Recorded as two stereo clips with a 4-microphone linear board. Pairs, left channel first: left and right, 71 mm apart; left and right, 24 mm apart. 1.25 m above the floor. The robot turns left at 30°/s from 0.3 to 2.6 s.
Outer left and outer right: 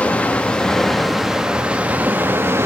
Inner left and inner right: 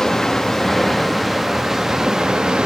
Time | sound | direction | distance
0.0 | running water | 25° left | 0.8 m